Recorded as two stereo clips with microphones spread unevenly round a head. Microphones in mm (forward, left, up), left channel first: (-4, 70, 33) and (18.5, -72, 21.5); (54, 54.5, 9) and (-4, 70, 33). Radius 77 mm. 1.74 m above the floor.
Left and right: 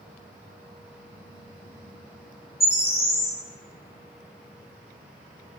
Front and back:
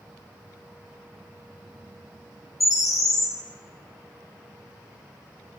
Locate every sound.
2.6 s a bird: 30° left, 1.1 m